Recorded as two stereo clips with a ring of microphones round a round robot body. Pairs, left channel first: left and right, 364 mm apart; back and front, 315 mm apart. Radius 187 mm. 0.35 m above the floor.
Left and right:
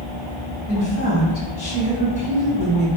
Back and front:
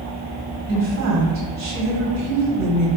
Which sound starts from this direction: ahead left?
A woman speaking, at 0.7 s.